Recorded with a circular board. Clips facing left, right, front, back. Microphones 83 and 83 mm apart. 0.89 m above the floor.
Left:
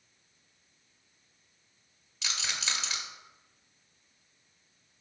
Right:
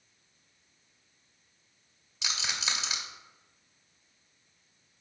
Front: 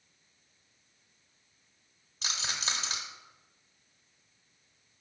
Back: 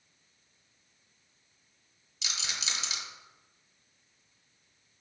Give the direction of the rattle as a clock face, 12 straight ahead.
1 o'clock.